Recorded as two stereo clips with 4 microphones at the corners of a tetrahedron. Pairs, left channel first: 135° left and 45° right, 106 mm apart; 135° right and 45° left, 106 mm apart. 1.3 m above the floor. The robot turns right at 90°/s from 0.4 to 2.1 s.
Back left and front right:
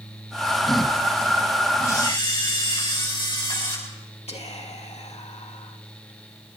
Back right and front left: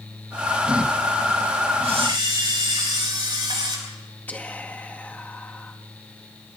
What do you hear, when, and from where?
1.8 s a camera shutter: 65° left, 8.5 m; by 3.8 s 90° left, 8.5 m
4.3 s whispering: 150° left, 2 m